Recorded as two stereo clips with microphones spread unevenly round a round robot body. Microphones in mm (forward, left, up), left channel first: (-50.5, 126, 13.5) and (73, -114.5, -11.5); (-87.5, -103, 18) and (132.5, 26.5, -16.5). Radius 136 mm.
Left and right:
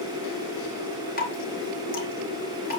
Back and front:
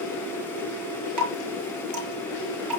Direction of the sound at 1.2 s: 55° left.